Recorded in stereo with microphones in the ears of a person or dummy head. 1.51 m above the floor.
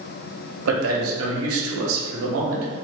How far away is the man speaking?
About 0.7 m.